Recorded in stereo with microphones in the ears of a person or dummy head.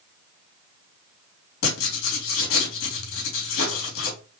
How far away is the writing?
About 3.5 m.